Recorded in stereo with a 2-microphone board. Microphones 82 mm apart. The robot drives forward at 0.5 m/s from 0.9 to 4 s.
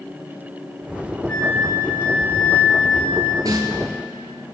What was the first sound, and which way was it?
A flute, 20° left (ahead or behind).